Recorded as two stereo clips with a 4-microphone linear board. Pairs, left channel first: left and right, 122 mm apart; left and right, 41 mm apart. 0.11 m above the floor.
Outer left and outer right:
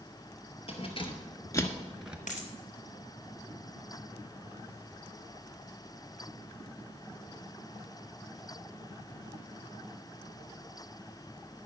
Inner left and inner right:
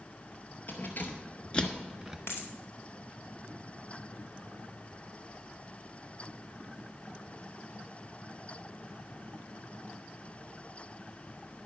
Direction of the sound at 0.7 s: 50° left (ahead or behind).